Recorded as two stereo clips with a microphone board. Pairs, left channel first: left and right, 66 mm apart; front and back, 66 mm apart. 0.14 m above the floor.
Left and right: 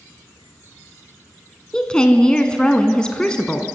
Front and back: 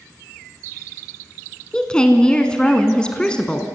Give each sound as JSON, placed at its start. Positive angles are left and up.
{"t": 1.7, "sound": "a woman speaking", "azimuth_deg": 45, "distance_m": 1.0}